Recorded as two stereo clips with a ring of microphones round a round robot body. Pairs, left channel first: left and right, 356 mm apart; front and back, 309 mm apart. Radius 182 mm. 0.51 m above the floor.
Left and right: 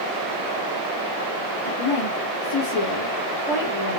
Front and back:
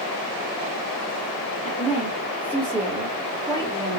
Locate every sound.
1.6 s a woman speaking: 70° left, 1.9 m; by 4.0 s 115° left, 1.7 m